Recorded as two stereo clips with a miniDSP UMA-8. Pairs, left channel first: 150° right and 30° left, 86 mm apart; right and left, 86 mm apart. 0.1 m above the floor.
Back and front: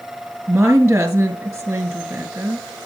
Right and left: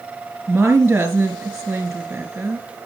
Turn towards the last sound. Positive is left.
turn(degrees=45)